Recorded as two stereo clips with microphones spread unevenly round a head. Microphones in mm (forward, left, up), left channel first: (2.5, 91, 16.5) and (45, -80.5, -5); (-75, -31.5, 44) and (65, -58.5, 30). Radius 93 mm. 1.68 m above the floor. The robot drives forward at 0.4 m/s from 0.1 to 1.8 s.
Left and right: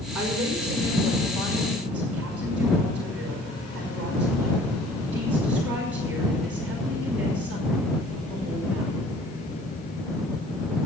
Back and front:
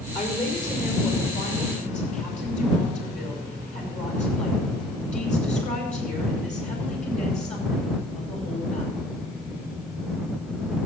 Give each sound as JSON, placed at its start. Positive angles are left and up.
{"t": 0.1, "sound": "a woman speaking", "azimuth_deg": -155, "distance_m": 5.0}